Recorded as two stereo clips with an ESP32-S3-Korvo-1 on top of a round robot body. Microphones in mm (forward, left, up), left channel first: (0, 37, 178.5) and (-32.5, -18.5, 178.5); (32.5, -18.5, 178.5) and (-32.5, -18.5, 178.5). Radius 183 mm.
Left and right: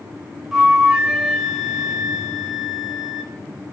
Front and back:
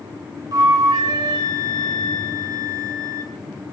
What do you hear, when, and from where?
0.5 s a flute: 155° left, 4.5 m